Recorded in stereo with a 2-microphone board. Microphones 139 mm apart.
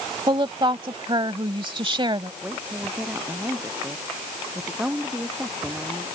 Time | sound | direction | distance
0.3 | a woman speaking | 35° right (ahead or behind) | ?
2.4 | a woman speaking | 10° right (ahead or behind) | ?